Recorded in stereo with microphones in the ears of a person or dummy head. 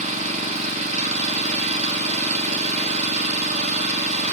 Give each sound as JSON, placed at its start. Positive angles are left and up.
{"t": 0.0, "sound": "an engine running", "side_deg": -35, "distance_m": 1.1}